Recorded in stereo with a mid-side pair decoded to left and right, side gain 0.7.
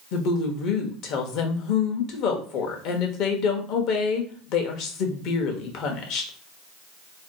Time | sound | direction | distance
0.1 | a woman speaking | 60° left | 0.9 m